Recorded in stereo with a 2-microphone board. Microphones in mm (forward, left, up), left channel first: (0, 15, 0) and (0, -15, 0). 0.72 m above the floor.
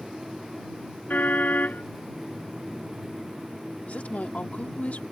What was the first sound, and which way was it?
A car horn, 85° left.